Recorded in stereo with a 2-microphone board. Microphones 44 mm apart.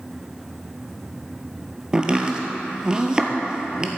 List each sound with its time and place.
1.9 s chopping: 20° right (ahead or behind), 1.2 m